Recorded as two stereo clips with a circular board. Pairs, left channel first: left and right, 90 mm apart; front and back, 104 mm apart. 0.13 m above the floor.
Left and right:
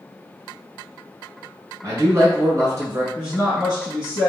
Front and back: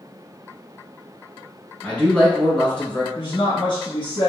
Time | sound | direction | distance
1.8 | a man speaking | 70° right | 1.4 m
3.1 | a woman speaking | 5° left | 1.7 m